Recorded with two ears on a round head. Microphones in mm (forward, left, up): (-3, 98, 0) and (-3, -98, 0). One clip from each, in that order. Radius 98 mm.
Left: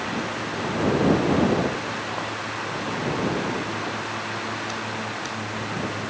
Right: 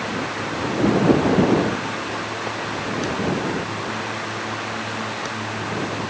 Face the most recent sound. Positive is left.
No sound to turn to.